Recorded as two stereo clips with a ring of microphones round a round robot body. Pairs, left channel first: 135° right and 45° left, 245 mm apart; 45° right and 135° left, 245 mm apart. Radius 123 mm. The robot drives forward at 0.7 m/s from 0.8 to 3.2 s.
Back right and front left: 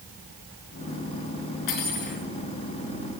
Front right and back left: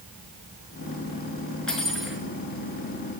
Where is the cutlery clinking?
135° right, 4 m.